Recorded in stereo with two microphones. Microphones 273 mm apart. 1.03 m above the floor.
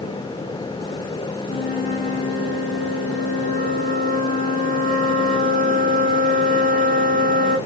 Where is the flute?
30° left (ahead or behind), 2 m.